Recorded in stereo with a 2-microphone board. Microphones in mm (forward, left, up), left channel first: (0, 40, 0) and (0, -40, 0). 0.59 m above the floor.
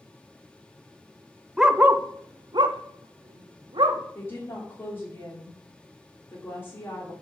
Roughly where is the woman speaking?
Left.